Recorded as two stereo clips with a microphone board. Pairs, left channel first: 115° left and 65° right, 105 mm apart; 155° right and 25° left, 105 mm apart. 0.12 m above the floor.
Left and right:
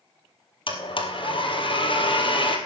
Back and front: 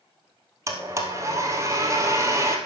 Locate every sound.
0.7 s a blender: 85° left, 1.8 m